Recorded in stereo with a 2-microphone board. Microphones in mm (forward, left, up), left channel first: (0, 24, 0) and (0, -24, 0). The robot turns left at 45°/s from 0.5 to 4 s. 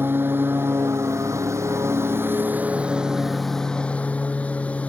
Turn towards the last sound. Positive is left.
turn(degrees=150)